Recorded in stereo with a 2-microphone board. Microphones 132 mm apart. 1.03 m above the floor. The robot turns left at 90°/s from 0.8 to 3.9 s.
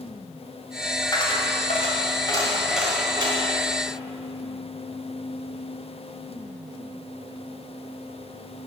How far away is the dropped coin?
About 1.8 m.